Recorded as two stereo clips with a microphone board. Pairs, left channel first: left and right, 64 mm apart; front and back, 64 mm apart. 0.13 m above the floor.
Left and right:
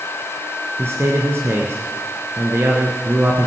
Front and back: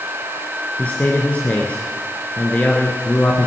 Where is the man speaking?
65° right, 1.8 m.